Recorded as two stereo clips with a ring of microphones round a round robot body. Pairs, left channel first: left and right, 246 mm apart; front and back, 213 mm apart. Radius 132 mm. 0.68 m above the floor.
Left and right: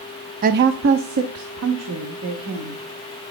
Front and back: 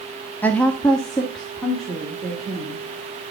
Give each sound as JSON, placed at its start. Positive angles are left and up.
{"t": 0.4, "sound": "a woman speaking", "azimuth_deg": -75, "distance_m": 0.5}